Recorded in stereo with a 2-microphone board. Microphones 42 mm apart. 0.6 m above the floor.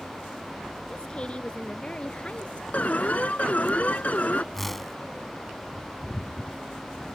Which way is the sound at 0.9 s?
25° left (ahead or behind).